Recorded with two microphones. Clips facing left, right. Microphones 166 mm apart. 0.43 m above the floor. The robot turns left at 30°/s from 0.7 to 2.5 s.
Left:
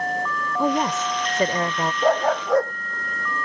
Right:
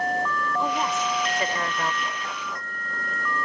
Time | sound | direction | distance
0.6 | a woman speaking | 80° left | ?
2.0 | a dog barking | 85° left | ?